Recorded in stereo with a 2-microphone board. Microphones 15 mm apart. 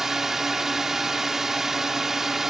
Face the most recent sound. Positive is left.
turn(degrees=-20)  # may be behind; listen again after turning